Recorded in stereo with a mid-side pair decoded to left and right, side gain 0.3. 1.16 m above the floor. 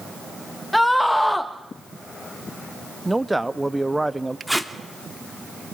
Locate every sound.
0.7 s a scream: 10° left, 1.4 m
3.0 s a man speaking: 10° right, 1.2 m
4.5 s tape being pulled: 5° right, 2.5 m